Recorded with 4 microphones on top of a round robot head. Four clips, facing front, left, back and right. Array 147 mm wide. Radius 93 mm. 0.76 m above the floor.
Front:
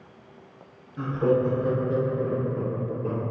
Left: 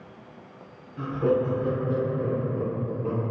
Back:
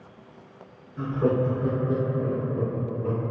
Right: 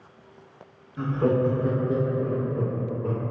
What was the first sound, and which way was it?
Laughter, 75° right.